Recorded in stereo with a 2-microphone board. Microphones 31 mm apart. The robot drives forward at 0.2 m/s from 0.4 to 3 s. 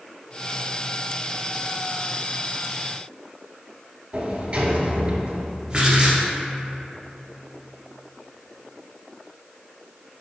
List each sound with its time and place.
4.1 s a sliding door: 30° right (ahead or behind), 0.9 m
5.7 s writing: 25° right (ahead or behind), 1.3 m